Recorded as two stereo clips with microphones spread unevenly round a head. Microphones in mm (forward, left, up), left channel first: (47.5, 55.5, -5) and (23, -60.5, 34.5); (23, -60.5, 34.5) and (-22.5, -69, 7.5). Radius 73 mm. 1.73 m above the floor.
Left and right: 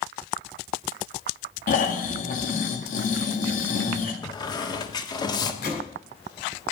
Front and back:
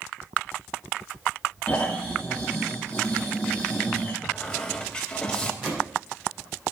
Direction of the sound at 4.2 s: 15° left.